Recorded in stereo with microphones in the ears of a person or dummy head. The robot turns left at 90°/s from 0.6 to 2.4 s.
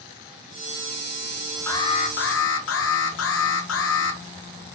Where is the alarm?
165° left, 1.7 m; by 4.2 s 100° left, 1.7 m.